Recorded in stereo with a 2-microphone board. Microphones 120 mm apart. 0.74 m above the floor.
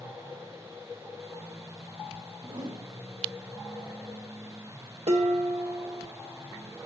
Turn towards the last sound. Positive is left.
turn(degrees=-70)  # may be behind; listen again after turning